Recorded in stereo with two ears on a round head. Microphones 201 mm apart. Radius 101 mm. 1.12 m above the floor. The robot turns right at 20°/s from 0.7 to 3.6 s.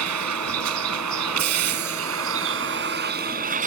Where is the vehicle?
95° right; by 3.7 s 35° right.